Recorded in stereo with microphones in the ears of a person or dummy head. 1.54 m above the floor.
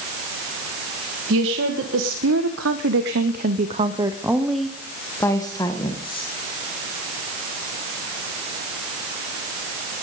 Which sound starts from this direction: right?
A woman speaking, at 1.3 s.